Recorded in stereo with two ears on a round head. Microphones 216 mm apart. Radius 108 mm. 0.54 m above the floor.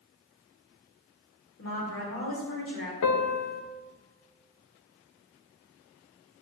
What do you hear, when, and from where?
1.6 s a woman speaking: 60° left (ahead or behind), 2 m
3.0 s a piano: 75° left (ahead or behind), 0.6 m